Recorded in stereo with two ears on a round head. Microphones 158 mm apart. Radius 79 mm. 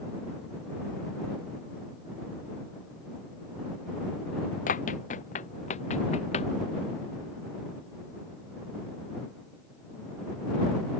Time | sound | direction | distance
4.7 | running footsteps | 45° left (ahead or behind) | ?